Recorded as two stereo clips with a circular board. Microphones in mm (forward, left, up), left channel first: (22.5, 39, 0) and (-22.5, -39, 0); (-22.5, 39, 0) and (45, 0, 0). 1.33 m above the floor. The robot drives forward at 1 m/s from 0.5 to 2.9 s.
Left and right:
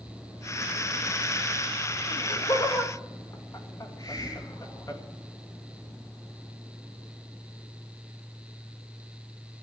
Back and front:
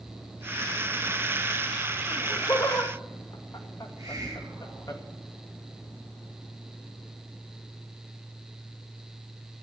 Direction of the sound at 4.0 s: 15° left.